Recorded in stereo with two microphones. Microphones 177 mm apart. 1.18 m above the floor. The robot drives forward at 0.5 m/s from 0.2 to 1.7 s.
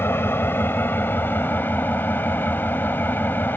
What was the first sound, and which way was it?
An engine running, 15° left (ahead or behind).